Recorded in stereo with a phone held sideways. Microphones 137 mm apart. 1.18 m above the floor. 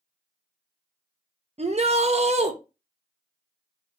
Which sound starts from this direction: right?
A shout, at 1.6 s.